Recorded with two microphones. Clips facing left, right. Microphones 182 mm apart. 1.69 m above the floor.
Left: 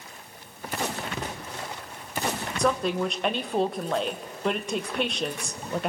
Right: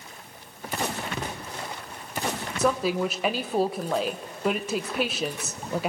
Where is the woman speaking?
5° right (ahead or behind), 1.2 m.